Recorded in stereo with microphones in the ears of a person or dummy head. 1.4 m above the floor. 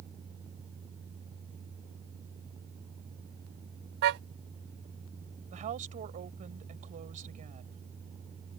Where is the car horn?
55° right (ahead or behind).